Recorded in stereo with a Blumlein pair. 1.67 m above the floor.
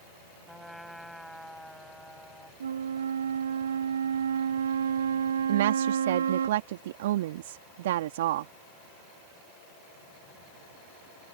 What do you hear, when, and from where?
0.5 s a trumpet: straight ahead
2.6 s a flute: 65° right
5.5 s a woman speaking: 55° right